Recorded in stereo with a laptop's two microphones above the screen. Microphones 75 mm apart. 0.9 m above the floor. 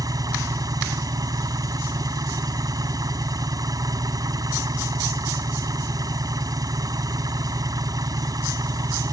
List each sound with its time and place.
0.0 s an engine running: 60° right (ahead or behind)